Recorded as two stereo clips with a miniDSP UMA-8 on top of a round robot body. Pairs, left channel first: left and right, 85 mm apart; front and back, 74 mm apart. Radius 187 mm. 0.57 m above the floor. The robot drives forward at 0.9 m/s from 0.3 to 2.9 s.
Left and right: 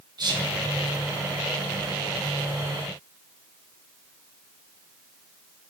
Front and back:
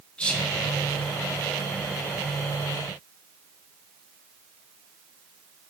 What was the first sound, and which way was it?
Whispering, 75° right.